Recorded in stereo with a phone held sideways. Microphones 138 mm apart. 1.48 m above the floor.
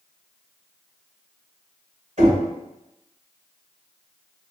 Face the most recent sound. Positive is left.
turn(degrees=-60)  # may be behind; listen again after turning